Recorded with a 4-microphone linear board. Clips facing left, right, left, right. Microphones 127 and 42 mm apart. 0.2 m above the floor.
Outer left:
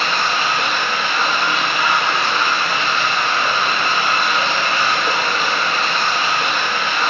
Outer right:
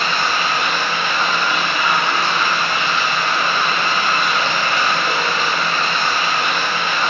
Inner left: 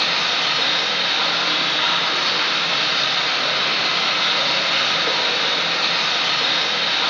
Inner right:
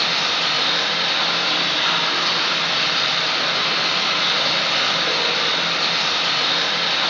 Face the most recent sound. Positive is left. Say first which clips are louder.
# even, even
turn(degrees=30)  # may be behind; listen again after turning